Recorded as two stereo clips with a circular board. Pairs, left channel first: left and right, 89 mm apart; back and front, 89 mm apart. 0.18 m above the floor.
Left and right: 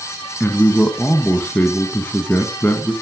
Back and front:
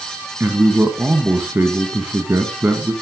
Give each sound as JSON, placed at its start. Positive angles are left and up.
{"t": 0.4, "sound": "a man speaking", "azimuth_deg": 40, "distance_m": 1.4}